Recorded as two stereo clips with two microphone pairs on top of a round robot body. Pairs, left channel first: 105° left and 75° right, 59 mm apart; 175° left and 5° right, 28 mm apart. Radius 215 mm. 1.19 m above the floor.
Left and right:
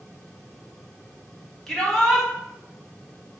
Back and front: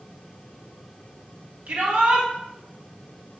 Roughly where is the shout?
Ahead left.